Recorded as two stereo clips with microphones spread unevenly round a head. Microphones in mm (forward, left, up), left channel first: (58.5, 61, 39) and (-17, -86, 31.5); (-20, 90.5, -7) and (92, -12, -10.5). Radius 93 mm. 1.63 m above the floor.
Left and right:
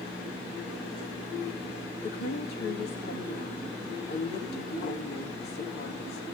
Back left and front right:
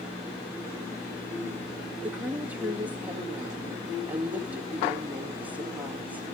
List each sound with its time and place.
2.0 s a woman speaking: 35° left, 2 m